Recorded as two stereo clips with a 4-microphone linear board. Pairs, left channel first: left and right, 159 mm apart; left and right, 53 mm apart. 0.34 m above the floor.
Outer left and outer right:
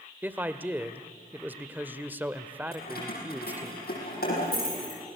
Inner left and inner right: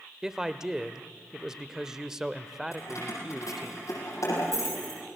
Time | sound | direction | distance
0.2 | a man speaking | 10° right (ahead or behind) | 0.9 m
2.7 | keys jangling | 85° left | 8.5 m